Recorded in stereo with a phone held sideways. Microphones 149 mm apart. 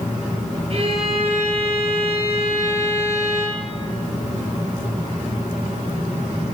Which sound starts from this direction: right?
A violin, at 0.7 s.